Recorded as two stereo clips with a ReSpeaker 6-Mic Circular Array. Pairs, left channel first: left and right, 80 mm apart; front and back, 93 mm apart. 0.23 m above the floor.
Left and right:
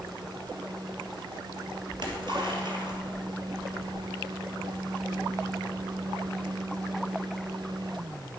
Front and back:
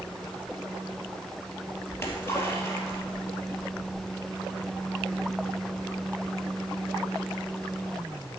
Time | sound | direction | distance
1.9 | a splash | 65° right | 2.5 m